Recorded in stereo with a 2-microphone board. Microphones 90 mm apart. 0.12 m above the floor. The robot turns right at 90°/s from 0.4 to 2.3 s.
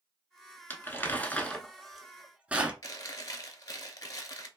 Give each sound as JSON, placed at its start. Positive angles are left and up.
{"t": 0.7, "sound": "crumpling", "side_deg": 25, "distance_m": 0.6}
{"t": 2.8, "sound": "chewing", "side_deg": 45, "distance_m": 0.5}